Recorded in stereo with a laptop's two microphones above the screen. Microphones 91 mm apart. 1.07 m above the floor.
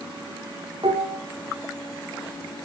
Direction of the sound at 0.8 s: 85° right.